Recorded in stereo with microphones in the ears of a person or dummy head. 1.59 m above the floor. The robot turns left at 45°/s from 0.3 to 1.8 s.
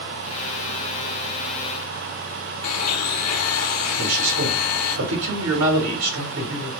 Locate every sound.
2.6 s a blender: 75° left (ahead or behind), 0.6 m
4.0 s a man speaking: 75° right (ahead or behind), 1.3 m